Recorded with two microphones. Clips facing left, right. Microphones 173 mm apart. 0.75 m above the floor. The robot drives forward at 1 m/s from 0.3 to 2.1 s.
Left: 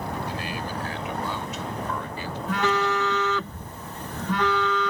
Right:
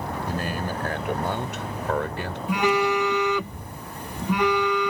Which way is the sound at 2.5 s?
15° right (ahead or behind).